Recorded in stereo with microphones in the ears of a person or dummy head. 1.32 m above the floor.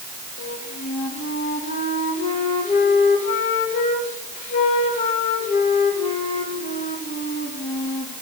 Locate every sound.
0.4 s a flute: 45° left (ahead or behind), 2.5 m